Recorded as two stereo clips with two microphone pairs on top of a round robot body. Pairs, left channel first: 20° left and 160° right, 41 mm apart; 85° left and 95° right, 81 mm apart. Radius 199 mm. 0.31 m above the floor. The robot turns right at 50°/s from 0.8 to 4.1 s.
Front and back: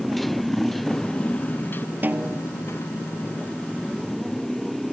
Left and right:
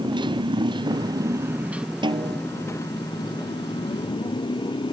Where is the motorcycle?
65° right; by 4.9 s 105° left.